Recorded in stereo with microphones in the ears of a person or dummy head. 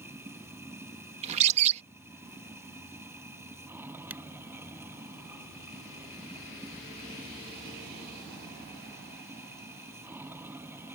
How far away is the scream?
I don't hear a scream.